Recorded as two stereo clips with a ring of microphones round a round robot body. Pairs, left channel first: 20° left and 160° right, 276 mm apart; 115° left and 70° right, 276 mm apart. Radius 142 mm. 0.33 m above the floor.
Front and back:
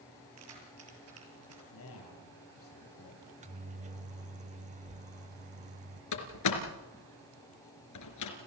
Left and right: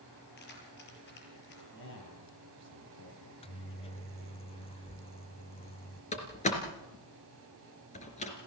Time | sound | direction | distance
0.4 | keys jangling | 165° left | 6.5 m
1.7 | a man speaking | 65° left | 10 m
3.2 | a microwave | 165° left | 0.9 m
6.1 | a door slam | 45° left | 3.5 m